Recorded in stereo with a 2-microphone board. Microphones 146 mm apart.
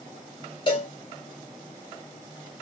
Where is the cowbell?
35° left (ahead or behind), 2 m.